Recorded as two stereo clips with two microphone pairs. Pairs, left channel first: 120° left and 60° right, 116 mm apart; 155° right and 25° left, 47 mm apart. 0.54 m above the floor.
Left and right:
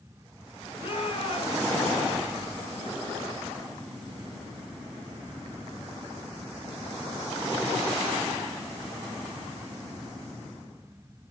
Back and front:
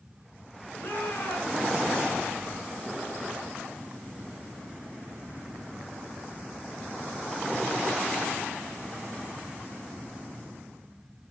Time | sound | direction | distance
0.8 | a shout | 165° left | 6.5 m